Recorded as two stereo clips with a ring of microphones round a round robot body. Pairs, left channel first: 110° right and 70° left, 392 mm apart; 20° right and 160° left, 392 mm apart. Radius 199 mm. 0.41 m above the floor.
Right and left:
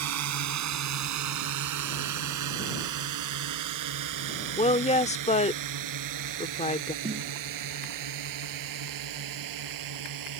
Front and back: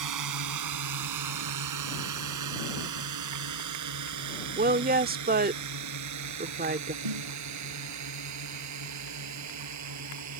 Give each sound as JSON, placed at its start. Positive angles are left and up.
{"t": 0.0, "sound": "a drone", "azimuth_deg": 115}
{"t": 4.5, "sound": "a woman speaking", "azimuth_deg": -165}
{"t": 7.0, "sound": "a snare drum", "azimuth_deg": 145}